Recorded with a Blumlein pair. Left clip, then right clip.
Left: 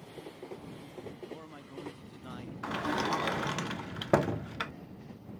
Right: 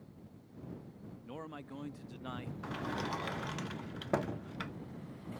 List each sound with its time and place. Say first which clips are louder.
1.2 s a man speaking: even; 10° right
2.6 s a sliding door: left 8 dB; 25° left